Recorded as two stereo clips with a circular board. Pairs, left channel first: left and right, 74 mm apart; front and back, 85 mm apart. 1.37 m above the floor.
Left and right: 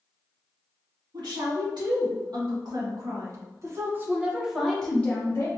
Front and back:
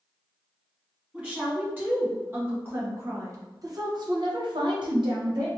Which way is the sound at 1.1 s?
110° right.